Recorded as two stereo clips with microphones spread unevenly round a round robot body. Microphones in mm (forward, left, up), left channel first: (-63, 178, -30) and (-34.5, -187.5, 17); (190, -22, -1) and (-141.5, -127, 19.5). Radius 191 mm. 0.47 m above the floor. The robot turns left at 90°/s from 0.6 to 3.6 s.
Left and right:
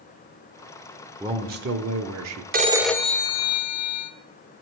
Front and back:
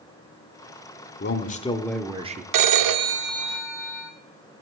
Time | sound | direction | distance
1.2 | a man speaking | straight ahead | 0.8 m
2.5 | a phone ringing | 155° right | 0.7 m